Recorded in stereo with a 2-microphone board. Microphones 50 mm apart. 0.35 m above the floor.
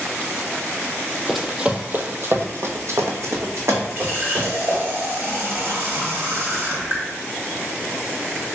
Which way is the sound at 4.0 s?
50° right (ahead or behind).